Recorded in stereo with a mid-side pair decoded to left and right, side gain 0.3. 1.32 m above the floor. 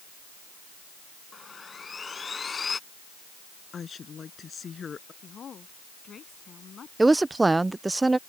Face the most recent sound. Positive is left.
turn(degrees=-30)